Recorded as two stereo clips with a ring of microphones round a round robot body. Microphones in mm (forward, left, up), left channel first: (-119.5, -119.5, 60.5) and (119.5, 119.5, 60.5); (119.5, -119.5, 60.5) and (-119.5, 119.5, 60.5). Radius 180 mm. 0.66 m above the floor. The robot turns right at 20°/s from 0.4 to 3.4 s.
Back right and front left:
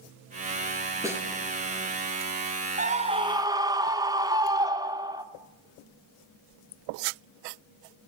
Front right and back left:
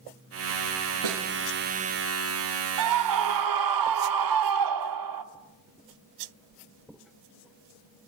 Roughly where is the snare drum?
Behind left.